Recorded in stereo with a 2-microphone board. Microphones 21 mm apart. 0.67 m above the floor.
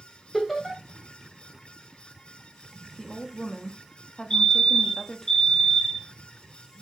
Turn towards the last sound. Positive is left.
turn(degrees=30)  # may be behind; listen again after turning